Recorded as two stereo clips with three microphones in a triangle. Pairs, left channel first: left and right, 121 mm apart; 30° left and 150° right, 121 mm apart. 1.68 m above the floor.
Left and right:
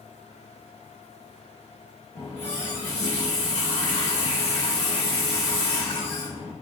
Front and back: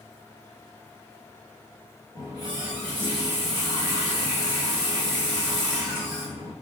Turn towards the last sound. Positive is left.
turn(degrees=80)